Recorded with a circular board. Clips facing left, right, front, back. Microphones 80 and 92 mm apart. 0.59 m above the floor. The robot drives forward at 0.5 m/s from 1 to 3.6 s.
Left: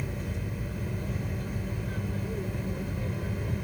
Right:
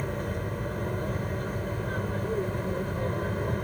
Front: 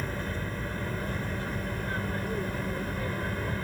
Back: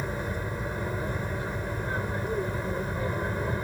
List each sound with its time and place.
0.0 s an aircraft: 110° right